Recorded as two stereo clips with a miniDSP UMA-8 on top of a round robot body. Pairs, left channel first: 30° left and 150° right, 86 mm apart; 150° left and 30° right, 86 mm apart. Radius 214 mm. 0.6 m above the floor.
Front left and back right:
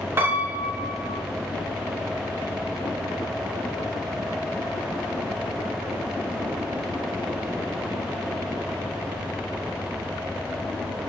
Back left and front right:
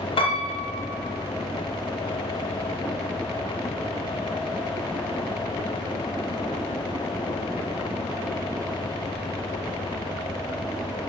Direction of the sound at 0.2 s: 145° left.